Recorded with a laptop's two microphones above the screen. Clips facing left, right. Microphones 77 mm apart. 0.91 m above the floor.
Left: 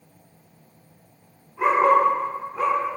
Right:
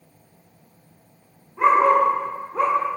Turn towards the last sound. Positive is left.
turn(degrees=-55)  # may be behind; listen again after turning